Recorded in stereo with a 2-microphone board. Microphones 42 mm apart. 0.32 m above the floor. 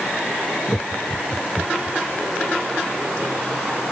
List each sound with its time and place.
0.7 s laughter: 30° left (ahead or behind); by 2.0 s 35° left (ahead or behind)